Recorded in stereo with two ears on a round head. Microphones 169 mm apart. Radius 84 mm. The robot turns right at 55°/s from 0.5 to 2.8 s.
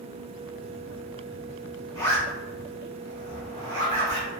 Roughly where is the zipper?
Left.